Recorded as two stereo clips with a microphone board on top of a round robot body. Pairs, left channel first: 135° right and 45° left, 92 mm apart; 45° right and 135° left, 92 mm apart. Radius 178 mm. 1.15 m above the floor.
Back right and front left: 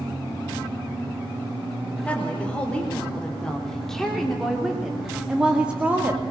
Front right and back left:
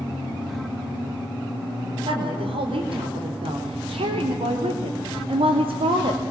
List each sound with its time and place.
2.0 s a woman speaking: 150° left, 4 m; by 6.2 s 115° left, 2 m